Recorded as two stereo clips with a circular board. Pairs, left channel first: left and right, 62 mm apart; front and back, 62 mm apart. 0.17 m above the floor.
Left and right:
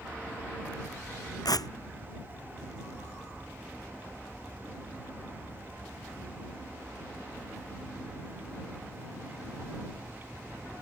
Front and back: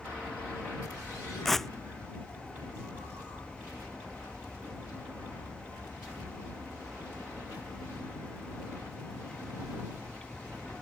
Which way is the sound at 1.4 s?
85° left.